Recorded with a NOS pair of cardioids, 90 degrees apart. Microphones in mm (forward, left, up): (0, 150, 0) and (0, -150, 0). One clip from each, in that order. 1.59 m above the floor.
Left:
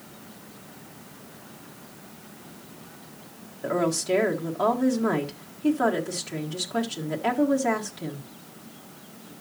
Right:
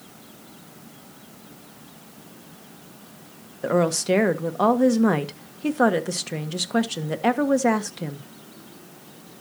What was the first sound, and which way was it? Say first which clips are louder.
A woman speaking: right 4 dB; 35° right.